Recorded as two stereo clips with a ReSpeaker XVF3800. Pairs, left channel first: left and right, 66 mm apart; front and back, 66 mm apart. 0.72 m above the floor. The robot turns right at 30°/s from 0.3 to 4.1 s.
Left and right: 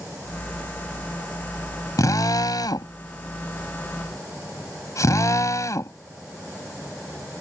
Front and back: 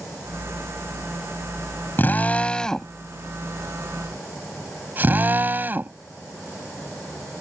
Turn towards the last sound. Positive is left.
turn(degrees=120)